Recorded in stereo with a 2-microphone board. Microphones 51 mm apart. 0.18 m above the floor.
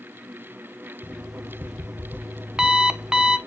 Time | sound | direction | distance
1.0 | an alarm clock | 15° right (ahead or behind) | 0.6 m